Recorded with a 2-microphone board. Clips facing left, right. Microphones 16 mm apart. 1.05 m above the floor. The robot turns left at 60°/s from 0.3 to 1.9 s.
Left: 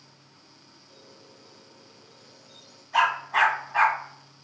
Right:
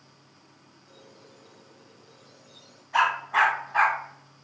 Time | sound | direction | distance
0.9 | a squeak | 120° right | 1.4 m
2.9 | a dog barking | centre (ahead or behind) | 2 m